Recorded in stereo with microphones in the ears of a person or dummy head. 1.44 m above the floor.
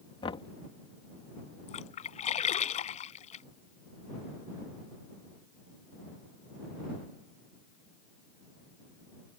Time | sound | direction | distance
0.2 | knocking | 30° left (ahead or behind) | ?
1.7 | a splash | 35° left (ahead or behind) | ?